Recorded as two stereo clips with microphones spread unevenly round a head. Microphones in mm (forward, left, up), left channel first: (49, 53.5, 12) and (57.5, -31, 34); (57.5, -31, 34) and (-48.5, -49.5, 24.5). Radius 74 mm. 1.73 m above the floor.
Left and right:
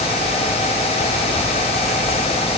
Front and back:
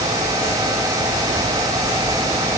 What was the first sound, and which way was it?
Only background noise.